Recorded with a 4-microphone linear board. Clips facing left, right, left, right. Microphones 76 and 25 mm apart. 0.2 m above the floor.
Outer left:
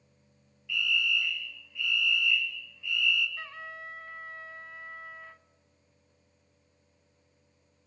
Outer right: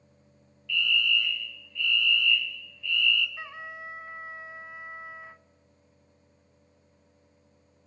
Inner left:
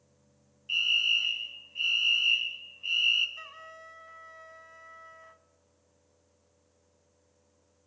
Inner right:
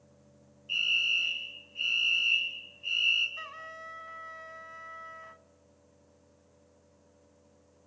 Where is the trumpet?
20° right (ahead or behind), 0.5 m.